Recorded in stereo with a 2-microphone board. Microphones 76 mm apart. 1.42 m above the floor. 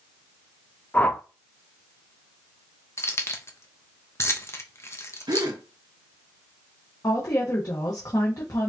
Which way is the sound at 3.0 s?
35° left (ahead or behind).